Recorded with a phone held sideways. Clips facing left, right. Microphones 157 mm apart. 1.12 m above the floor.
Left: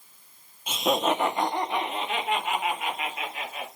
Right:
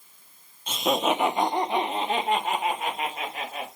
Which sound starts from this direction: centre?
Laughter, at 0.7 s.